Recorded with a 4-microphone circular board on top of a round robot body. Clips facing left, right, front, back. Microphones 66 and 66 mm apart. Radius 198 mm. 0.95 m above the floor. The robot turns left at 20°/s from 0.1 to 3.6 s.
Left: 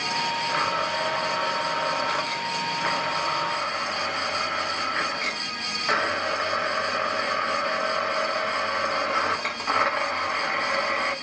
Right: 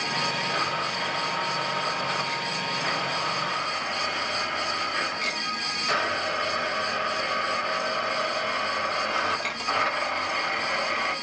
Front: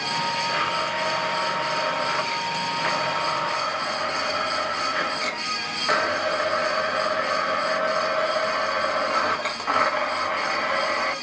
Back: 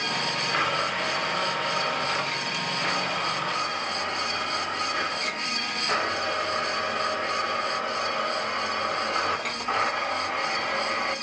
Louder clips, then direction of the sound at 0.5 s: Left 3 dB, front 1 dB; 95° left.